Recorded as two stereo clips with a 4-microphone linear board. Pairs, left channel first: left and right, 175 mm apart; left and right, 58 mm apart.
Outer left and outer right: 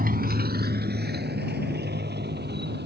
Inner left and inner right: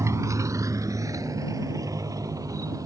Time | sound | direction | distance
0.0 | a motorcycle | 55° right (ahead or behind) | ?